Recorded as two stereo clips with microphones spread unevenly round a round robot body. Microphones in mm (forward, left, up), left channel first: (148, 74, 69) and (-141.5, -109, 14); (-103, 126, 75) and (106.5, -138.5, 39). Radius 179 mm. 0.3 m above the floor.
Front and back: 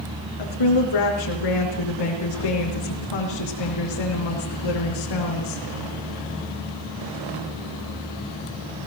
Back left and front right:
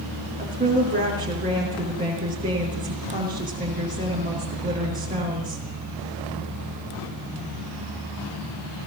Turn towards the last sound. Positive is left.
turn(degrees=15)